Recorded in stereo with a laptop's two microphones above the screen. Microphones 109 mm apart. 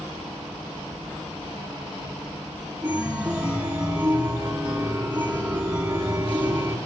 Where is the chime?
10° right (ahead or behind), 2.5 m.